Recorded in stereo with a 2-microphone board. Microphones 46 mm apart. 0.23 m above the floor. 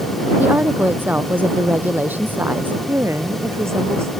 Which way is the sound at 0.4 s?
40° right (ahead or behind).